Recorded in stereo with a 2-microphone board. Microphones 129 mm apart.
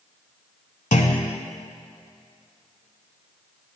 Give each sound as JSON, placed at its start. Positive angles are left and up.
{"t": 0.9, "sound": "a clunk", "side_deg": 85, "distance_m": 0.7}